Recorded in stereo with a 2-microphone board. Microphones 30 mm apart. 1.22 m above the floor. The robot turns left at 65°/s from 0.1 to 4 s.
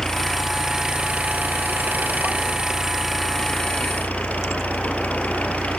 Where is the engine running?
20° left; by 5.8 s 125° left.